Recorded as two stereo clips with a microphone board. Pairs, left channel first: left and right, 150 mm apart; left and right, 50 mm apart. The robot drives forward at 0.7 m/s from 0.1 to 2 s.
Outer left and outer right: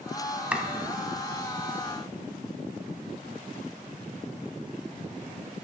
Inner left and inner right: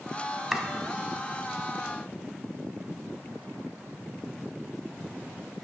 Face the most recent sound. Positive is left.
turn(degrees=-5)  # may be behind; listen again after turning